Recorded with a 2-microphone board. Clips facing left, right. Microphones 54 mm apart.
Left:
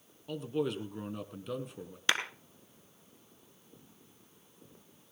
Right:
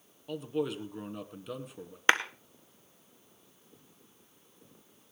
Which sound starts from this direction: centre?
A man speaking, at 0.3 s.